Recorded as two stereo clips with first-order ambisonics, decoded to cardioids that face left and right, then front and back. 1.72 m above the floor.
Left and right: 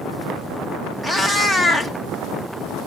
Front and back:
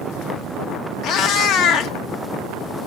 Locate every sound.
1.0 s a cat meowing: 5° right, 1.2 m